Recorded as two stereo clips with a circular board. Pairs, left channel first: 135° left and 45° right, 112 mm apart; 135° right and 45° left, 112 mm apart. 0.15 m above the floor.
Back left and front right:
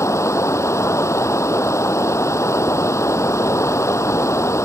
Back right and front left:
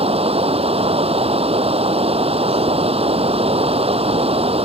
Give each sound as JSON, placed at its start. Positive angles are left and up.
{"t": 0.0, "sound": "running water", "azimuth_deg": 70}